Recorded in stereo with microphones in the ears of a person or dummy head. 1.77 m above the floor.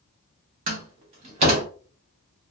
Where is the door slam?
35° right (ahead or behind), 0.8 m.